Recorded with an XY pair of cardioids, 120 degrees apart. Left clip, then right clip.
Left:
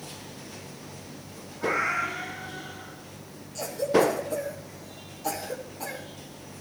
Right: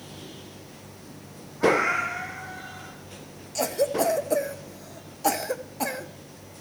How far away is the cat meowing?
About 6 m.